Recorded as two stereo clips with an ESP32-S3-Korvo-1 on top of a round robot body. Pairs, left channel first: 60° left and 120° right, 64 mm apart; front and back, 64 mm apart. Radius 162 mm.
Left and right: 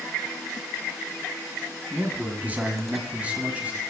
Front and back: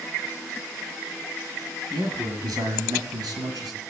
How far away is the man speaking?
About 7.5 m.